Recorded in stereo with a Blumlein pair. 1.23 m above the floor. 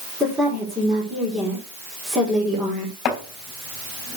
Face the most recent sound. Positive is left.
turn(degrees=30)